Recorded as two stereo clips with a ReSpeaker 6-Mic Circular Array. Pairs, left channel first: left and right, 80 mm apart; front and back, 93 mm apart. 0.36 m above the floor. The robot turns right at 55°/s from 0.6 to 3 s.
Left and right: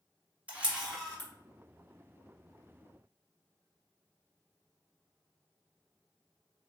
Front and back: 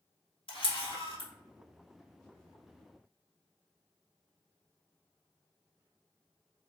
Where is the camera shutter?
15° right, 1.3 m; by 1.3 s 25° left, 1.3 m.